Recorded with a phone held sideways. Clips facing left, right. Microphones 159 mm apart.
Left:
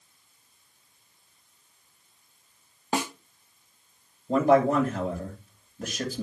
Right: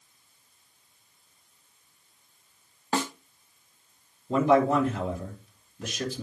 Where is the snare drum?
15° left (ahead or behind), 0.8 m.